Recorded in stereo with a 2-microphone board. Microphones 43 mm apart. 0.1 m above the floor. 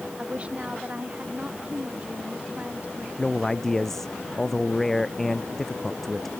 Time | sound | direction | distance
0.2 | a woman speaking | 30° right (ahead or behind) | ?
3.2 | a man speaking | 5° left (ahead or behind) | ?